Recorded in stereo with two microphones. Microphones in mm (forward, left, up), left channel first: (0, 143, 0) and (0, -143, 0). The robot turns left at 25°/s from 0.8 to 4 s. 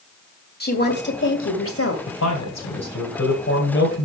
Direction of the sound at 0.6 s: 35° left (ahead or behind).